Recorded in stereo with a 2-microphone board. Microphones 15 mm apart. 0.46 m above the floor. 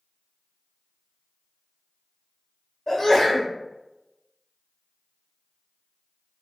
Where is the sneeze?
50° left (ahead or behind), 1.9 m.